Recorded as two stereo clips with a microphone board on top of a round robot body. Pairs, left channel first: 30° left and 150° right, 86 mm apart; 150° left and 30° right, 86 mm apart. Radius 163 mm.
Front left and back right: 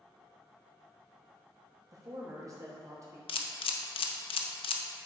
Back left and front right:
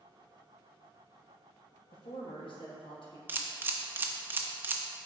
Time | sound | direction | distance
1.9 | a man speaking | 160° left | 2.5 m
3.3 | a camera shutter | 40° left | 0.6 m